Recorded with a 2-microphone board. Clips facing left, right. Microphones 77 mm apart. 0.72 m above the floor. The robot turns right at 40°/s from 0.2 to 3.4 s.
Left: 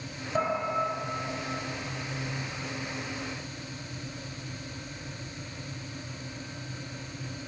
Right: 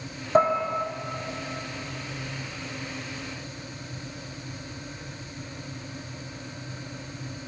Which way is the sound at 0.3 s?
60° right (ahead or behind).